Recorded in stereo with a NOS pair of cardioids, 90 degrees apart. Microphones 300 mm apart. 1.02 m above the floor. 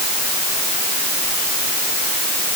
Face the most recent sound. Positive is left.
No sound to turn to.